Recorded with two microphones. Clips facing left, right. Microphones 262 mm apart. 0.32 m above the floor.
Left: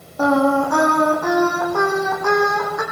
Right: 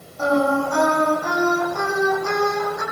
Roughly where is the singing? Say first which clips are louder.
Left 3 dB; left.